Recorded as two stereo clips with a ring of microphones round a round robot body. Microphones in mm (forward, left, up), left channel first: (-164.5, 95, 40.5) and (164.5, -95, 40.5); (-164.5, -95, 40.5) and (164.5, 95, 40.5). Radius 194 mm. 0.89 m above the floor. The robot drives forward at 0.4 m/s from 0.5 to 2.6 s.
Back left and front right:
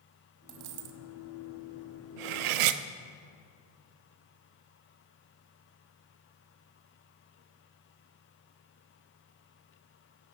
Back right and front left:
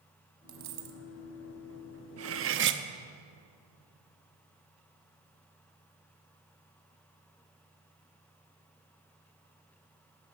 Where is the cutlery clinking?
25° right, 0.9 m; by 2.8 s 30° right, 0.7 m.